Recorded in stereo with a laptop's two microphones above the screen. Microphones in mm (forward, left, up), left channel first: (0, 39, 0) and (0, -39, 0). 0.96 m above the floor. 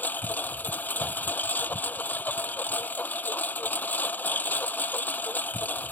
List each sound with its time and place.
0.0 s a lawn mower: 20° left (ahead or behind)